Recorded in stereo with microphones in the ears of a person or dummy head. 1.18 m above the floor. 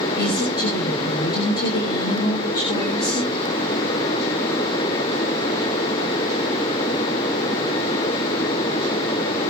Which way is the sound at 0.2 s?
25° left (ahead or behind).